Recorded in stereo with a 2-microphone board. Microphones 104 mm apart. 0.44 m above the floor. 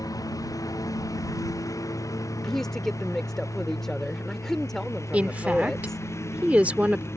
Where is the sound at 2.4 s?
5° left (ahead or behind).